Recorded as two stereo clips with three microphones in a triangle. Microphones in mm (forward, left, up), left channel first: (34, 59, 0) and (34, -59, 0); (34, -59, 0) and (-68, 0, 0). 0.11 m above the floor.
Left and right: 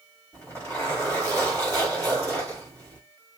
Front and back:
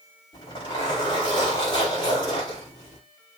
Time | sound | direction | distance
0.3 | a zipper | 15° left | 6.5 m